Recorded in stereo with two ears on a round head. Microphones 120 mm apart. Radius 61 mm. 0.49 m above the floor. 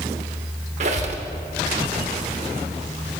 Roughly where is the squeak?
Right.